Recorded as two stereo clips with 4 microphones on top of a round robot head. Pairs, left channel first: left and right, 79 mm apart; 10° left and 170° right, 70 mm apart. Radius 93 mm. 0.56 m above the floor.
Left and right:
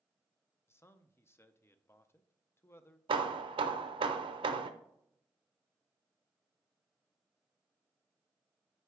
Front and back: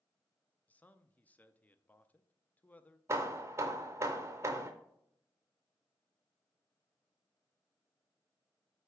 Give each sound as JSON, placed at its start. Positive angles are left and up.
{"t": 0.7, "sound": "a man speaking", "azimuth_deg": 60, "distance_m": 0.7}
{"t": 3.1, "sound": "hammering", "azimuth_deg": -110, "distance_m": 0.6}